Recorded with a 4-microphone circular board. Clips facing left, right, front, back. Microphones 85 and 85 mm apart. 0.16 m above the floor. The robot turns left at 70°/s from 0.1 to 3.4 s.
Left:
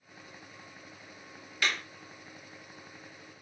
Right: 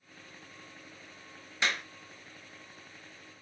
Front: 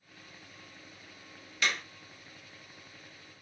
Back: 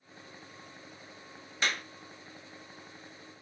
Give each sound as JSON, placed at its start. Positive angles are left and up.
{"t": 1.6, "sound": "a clap", "azimuth_deg": -140, "distance_m": 1.1}